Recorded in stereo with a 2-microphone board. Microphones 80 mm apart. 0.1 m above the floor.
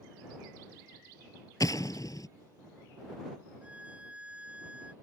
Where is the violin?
15° right (ahead or behind).